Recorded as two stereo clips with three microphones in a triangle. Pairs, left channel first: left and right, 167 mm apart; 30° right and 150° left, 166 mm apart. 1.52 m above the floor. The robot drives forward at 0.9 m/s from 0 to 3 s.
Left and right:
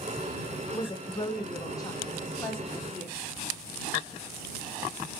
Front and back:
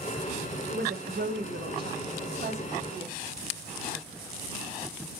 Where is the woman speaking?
140° left, 1.1 m; by 3.2 s 165° left, 3 m.